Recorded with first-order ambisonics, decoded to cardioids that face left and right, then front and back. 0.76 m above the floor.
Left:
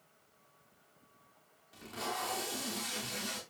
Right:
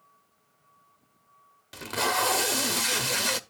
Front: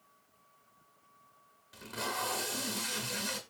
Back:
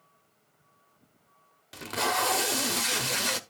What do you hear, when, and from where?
1.7 s tape being pulled: 130° right, 0.9 m